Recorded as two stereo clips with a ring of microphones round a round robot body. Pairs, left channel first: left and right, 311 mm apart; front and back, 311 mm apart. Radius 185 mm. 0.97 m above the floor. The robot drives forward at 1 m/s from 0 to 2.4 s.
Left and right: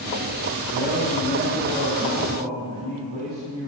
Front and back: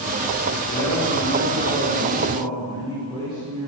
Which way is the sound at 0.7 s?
70° right.